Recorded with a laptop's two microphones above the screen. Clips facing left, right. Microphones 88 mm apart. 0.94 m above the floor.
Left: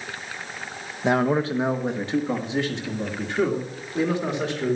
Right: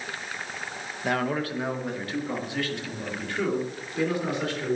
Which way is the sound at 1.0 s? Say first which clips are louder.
Left 6 dB; 20° left (ahead or behind).